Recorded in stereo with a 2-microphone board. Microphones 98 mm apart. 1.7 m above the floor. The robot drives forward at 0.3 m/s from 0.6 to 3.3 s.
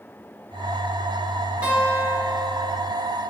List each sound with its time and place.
1.6 s a guitar: 15° right (ahead or behind), 1.7 m; by 3.0 s 10° right (ahead or behind), 2.0 m